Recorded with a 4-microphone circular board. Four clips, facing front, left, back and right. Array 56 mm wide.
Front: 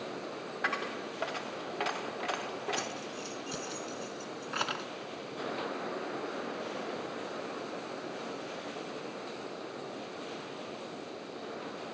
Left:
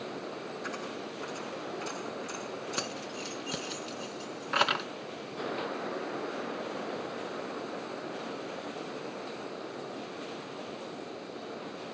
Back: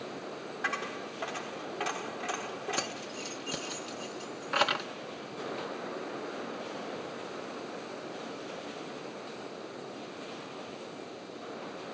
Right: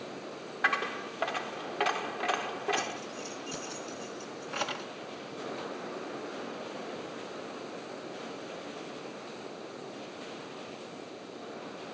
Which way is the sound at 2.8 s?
120° left.